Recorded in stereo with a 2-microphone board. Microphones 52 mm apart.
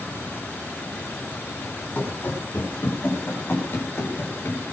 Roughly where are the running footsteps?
Left.